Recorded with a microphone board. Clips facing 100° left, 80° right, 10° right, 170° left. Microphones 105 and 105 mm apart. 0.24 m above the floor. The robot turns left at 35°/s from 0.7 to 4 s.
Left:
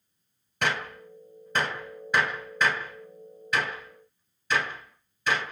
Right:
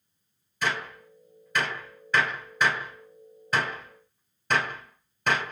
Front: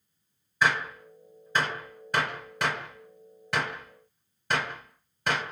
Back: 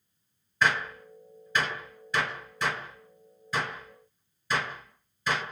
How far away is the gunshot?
About 1.4 m.